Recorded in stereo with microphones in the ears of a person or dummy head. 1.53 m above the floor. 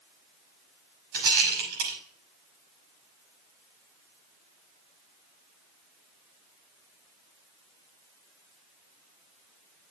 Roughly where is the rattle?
Right.